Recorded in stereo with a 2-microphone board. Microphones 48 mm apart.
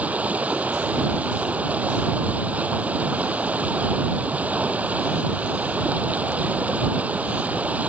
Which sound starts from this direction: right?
Running water, at 0.0 s.